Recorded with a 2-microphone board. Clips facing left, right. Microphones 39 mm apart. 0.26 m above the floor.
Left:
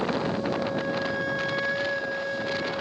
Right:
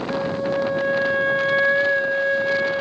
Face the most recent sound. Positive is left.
turn(degrees=-40)  # may be behind; listen again after turning